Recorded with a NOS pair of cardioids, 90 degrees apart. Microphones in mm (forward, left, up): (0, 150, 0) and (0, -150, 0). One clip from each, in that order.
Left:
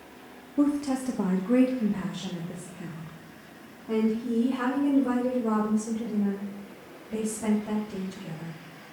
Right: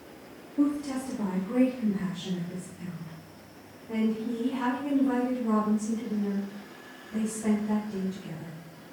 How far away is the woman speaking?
About 1.1 m.